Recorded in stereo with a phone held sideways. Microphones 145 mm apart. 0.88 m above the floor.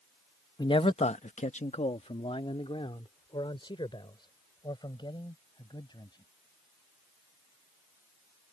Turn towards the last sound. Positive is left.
turn(degrees=35)  # may be behind; listen again after turning